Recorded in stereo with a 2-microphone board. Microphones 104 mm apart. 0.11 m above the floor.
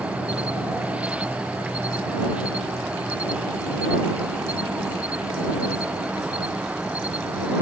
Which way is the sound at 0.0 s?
10° right (ahead or behind).